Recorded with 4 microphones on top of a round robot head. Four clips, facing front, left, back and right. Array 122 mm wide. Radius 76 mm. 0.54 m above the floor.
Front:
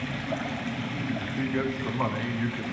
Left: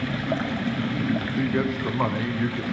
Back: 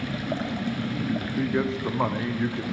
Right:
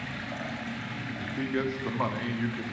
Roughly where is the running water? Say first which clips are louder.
Left 10 dB, back 2 dB; behind left.